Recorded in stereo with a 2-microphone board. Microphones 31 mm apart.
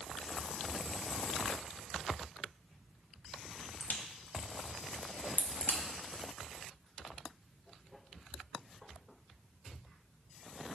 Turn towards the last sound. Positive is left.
turn(degrees=55)  # may be behind; listen again after turning